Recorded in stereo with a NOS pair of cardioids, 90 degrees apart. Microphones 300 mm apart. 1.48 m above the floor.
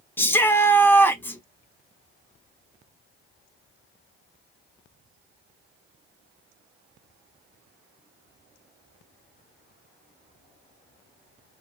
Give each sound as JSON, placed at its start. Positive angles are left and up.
{"t": 0.2, "sound": "a shout", "azimuth_deg": 5, "distance_m": 0.8}